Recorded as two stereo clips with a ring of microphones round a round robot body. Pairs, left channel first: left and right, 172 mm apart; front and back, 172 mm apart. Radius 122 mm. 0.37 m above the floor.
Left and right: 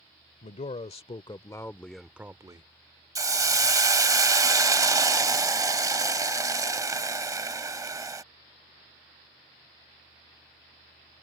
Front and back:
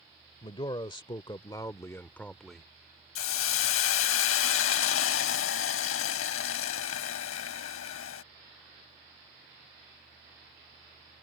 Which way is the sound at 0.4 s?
55° left.